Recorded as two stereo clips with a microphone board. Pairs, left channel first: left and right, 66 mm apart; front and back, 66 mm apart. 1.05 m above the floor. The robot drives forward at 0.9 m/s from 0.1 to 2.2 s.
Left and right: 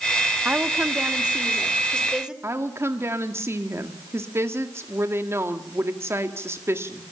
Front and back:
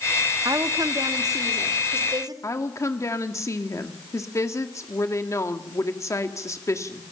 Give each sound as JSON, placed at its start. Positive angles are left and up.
{"t": 0.5, "sound": "a woman speaking", "azimuth_deg": -155, "distance_m": 1.7}
{"t": 2.4, "sound": "a woman speaking", "azimuth_deg": -40, "distance_m": 1.8}